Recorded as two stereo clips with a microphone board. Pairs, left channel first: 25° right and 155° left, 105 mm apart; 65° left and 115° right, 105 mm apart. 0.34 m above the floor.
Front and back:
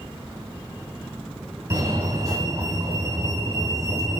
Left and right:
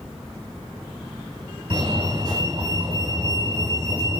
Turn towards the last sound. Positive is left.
turn(degrees=-150)